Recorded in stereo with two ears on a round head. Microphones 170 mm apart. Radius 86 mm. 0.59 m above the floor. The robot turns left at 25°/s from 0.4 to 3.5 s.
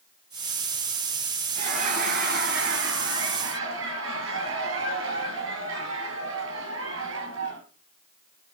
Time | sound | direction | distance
1.6 | laughter | 35° right | 6.5 m